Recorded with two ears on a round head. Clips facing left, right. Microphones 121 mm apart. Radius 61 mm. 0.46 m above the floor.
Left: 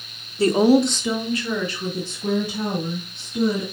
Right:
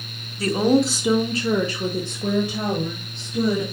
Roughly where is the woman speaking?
Left.